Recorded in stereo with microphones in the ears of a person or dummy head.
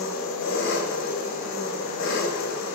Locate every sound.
0.0 s an engine running: 70° left (ahead or behind), 4.5 m